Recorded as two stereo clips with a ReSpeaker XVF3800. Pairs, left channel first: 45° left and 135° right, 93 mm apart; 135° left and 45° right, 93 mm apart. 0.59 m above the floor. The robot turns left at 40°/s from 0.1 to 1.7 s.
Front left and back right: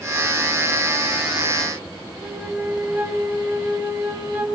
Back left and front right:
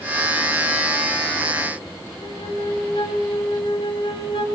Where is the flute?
150° left, 4 m.